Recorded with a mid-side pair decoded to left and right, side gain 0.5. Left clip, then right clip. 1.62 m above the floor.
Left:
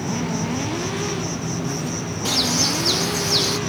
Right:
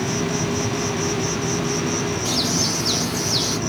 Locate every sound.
0.0 s an insect: 25° right, 0.7 m
2.2 s a bird: 25° left, 0.8 m